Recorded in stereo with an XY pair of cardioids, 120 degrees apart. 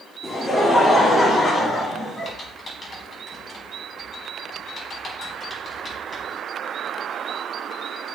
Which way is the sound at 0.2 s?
15° left.